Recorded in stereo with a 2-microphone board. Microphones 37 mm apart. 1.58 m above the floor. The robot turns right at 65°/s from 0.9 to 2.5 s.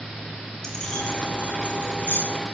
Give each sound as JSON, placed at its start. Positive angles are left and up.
{"t": 0.6, "sound": "keys jangling", "side_deg": 15, "distance_m": 8.5}